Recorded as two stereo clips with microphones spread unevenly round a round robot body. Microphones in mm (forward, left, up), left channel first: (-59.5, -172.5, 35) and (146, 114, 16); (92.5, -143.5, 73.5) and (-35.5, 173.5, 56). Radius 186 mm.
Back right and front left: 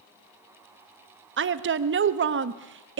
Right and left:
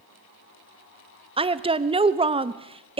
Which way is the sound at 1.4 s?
55° left.